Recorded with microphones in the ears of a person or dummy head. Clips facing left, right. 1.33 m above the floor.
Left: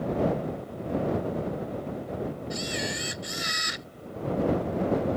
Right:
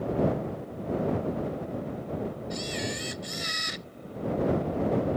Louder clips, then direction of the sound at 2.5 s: Left 1 dB; 5° left (ahead or behind).